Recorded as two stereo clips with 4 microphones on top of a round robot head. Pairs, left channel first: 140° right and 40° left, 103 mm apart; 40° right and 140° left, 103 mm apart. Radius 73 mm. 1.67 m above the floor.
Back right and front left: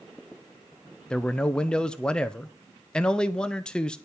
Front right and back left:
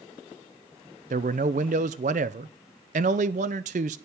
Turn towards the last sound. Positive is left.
turn(degrees=135)